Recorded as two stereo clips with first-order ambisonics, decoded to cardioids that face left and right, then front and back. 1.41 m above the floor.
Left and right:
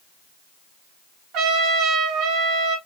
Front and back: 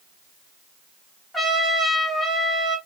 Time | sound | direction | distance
1.3 | a trumpet | 90° right | 1.2 m